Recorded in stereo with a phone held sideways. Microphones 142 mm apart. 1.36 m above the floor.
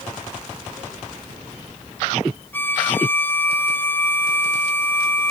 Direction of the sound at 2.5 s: 15° left (ahead or behind).